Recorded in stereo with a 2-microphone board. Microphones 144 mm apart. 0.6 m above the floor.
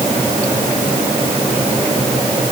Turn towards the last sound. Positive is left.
No sound to turn to.